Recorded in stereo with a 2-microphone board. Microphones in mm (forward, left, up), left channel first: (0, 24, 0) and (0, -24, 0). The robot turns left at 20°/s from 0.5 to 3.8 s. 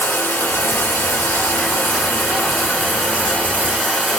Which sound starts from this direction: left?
Running water, at 0.0 s.